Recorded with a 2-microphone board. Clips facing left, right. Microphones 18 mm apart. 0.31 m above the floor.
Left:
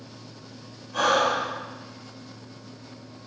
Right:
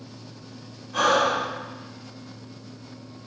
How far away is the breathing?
About 0.9 m.